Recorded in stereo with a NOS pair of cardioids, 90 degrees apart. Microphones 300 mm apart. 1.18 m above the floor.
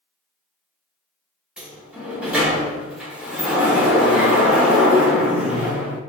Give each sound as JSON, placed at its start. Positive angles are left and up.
{"t": 1.6, "sound": "a sliding door", "azimuth_deg": -5, "distance_m": 0.9}